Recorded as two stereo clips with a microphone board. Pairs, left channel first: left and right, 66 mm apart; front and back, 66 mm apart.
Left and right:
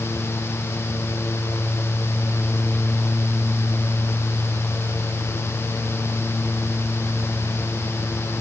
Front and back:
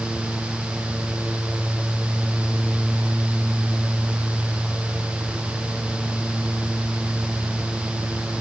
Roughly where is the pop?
No pop in this recording.